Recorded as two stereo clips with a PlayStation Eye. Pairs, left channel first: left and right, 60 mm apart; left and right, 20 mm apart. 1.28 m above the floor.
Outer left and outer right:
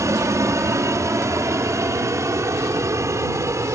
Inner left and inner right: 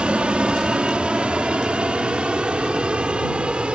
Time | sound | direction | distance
0.0 | an aircraft | 60° right (ahead or behind) | ?